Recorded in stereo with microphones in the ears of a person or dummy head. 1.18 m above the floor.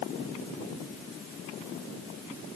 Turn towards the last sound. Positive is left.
No sound to turn to.